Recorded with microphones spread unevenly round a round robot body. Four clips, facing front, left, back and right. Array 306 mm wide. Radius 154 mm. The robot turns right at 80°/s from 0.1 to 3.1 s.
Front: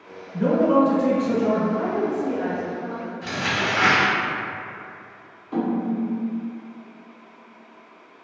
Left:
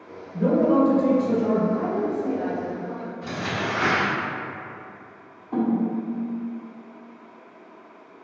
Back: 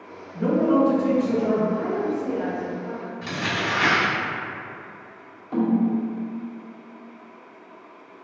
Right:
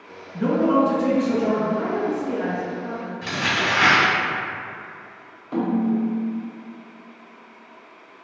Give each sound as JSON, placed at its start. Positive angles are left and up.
{"t": 0.3, "sound": "a man speaking", "azimuth_deg": 15, "distance_m": 1.9}
{"t": 1.7, "sound": "a woman speaking", "azimuth_deg": 110, "distance_m": 0.9}
{"t": 3.2, "sound": "crumpling", "azimuth_deg": -150, "distance_m": 1.3}
{"t": 5.5, "sound": "a snare drum", "azimuth_deg": -145, "distance_m": 1.9}